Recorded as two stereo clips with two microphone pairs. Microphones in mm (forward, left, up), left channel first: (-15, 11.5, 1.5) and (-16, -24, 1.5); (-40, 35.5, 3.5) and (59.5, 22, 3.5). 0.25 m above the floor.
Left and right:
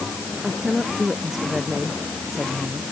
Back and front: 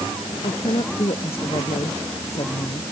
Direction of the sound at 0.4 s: 175° right.